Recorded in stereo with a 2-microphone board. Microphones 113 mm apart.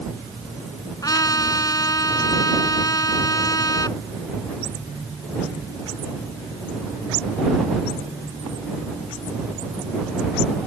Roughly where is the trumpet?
Left.